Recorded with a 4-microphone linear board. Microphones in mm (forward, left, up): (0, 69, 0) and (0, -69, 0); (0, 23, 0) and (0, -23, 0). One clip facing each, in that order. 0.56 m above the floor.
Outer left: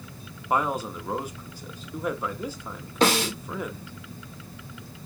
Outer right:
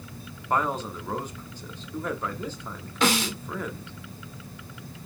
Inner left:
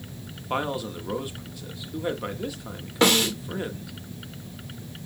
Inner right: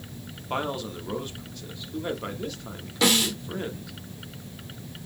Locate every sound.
0.5 s a man speaking: 10° left (ahead or behind), 0.8 m
3.0 s a snare drum: 35° left (ahead or behind), 2 m